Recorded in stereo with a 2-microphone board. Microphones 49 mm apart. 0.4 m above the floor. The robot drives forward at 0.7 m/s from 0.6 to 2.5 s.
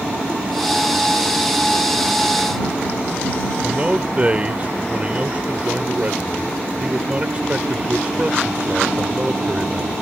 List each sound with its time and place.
3.6 s a man speaking: 30° right (ahead or behind)